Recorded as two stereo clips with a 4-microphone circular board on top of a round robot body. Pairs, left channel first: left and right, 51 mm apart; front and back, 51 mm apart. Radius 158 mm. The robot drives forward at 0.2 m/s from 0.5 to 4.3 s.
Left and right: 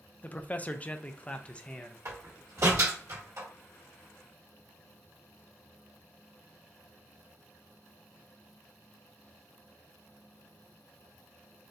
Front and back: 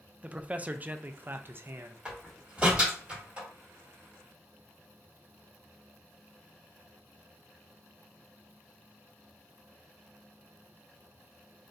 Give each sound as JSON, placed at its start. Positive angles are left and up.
{"t": 0.2, "sound": "a man speaking", "azimuth_deg": 130, "distance_m": 0.5}
{"t": 2.0, "sound": "a door slam", "azimuth_deg": -105, "distance_m": 1.9}